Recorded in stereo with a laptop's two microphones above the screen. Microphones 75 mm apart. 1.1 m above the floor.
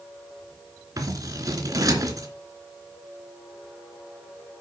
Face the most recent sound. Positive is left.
turn(degrees=-55)  # may be behind; listen again after turning